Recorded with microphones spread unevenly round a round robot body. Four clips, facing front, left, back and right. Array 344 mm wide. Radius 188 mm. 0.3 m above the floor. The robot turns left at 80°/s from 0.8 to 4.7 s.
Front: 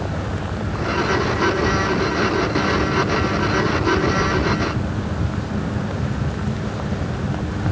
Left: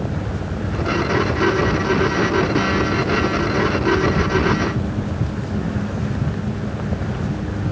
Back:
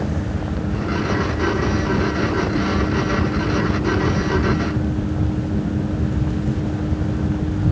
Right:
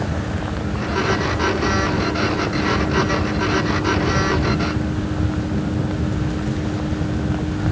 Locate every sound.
Only background noise.